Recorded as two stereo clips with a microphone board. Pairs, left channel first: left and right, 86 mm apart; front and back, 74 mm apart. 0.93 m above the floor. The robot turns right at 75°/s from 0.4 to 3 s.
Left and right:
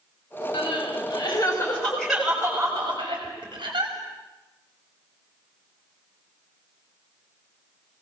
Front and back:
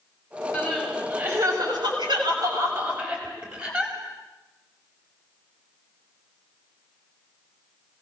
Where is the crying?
65° left, 6.5 m; by 3.9 s 110° right, 6.5 m.